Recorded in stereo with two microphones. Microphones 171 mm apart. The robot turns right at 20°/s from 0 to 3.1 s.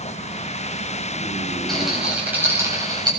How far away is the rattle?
About 7.5 m.